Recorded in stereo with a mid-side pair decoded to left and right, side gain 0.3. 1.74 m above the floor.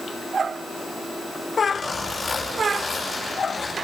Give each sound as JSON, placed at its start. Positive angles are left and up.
{"t": 1.6, "sound": "a zipper", "azimuth_deg": 50, "distance_m": 6.5}